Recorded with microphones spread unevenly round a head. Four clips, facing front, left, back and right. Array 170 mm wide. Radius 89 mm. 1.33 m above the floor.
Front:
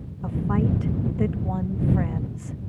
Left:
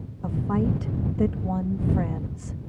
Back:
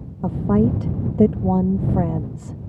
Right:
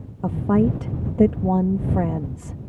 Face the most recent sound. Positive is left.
turn(degrees=-140)